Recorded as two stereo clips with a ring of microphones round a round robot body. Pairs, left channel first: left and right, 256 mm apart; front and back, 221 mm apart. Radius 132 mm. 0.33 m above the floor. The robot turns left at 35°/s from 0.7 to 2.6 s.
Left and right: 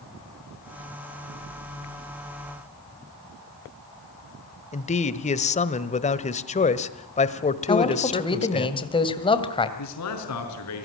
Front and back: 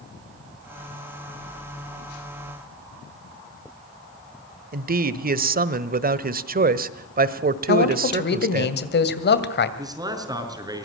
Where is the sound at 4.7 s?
145° left, 1.3 m.